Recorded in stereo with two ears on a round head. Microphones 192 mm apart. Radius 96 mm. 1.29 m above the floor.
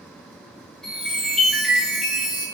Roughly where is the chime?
Centre.